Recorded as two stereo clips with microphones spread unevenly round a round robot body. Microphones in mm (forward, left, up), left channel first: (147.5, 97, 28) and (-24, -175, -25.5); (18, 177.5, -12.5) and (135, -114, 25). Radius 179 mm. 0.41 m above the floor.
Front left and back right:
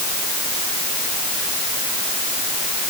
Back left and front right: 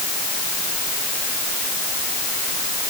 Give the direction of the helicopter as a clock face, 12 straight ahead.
I don't hear a helicopter.